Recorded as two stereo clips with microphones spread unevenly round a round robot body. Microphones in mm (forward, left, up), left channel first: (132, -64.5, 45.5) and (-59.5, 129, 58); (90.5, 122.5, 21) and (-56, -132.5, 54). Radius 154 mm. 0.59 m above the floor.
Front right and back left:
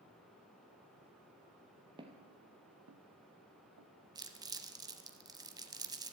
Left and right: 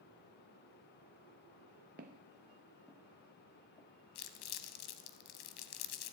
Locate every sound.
2.0 s footsteps: 160° right, 0.7 m; by 3.9 s 135° left, 1.2 m
4.2 s crumpling: 60° left, 1.1 m